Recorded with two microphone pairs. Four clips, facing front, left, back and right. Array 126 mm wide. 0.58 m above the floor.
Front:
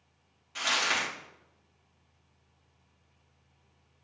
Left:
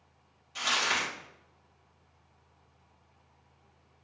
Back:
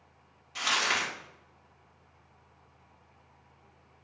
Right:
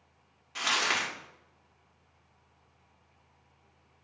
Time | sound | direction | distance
0.6 | crumpling | 90° right | 1.5 m